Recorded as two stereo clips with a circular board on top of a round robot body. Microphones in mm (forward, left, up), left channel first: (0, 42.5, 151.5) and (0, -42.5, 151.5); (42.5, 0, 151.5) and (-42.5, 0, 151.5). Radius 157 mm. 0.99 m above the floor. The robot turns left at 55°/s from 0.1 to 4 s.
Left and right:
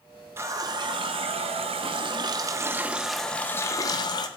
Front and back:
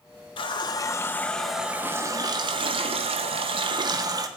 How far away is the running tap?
About 0.5 m.